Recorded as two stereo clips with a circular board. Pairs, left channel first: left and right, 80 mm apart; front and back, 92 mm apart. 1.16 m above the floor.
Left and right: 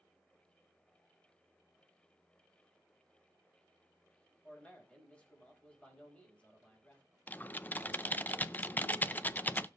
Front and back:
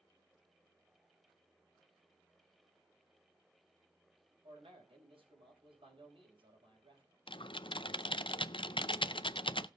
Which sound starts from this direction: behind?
A man speaking, at 4.4 s.